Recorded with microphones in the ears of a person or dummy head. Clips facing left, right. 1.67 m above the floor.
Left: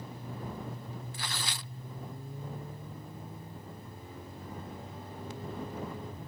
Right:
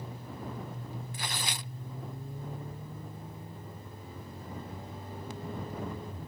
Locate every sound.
1.1 s tearing paper: 15° right (ahead or behind)